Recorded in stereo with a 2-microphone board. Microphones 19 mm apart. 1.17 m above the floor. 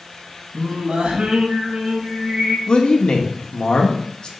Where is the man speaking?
45° left (ahead or behind), 2 m.